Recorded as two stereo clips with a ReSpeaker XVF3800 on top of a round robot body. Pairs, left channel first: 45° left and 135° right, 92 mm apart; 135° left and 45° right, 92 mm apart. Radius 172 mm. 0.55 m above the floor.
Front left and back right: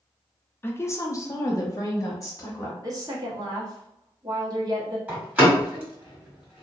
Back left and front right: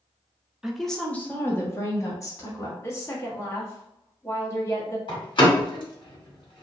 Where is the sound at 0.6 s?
35° left, 0.8 m; by 2.7 s 90° left, 1.6 m.